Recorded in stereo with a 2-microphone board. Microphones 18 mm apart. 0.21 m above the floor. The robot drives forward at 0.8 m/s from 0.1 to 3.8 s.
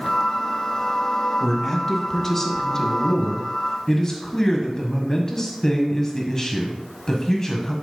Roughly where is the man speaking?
Centre.